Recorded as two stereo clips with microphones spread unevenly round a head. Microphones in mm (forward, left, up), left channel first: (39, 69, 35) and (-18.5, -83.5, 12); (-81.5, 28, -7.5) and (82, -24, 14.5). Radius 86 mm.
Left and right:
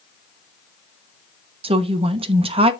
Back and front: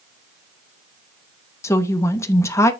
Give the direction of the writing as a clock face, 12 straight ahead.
No writing in this recording.